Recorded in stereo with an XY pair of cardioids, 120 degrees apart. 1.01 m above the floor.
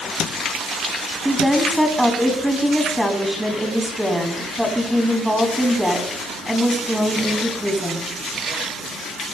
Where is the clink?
I don't hear a clink.